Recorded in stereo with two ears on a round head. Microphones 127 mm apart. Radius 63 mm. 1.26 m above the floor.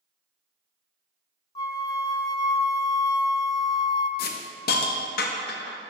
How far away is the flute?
About 0.5 m.